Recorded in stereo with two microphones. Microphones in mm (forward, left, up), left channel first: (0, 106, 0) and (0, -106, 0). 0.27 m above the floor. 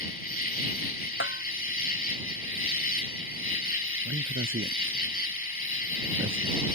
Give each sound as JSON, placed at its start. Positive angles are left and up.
{"t": 0.0, "sound": "an insect", "side_deg": 45}
{"t": 1.2, "sound": "a bell", "side_deg": 70}
{"t": 4.0, "sound": "a man speaking", "side_deg": -75}